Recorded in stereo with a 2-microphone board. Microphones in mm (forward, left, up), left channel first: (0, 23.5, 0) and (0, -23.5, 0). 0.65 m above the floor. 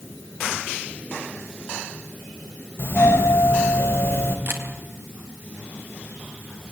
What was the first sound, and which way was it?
A doorbell, 60° left (ahead or behind).